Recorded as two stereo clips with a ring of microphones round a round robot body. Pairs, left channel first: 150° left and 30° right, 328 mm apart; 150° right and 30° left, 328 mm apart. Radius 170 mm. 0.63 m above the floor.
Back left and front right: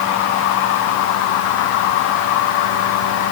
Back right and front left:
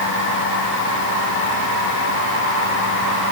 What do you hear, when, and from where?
Only background noise.